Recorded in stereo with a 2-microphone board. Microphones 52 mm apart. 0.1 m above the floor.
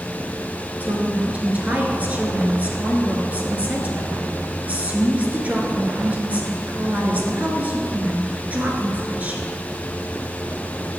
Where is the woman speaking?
30° right (ahead or behind), 1.2 m.